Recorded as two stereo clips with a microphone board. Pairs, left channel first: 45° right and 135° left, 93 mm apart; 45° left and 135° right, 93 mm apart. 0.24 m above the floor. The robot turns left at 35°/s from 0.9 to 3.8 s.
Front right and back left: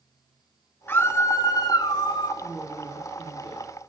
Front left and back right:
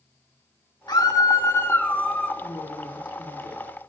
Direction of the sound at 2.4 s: 30° left.